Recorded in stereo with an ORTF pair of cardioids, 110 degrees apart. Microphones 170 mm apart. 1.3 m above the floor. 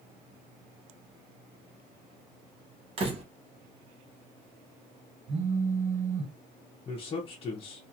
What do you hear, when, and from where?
3.0 s a door slam: 35° right, 0.9 m
5.3 s a phone buzzing: 40° right, 1.9 m
6.8 s a man speaking: 35° left, 0.8 m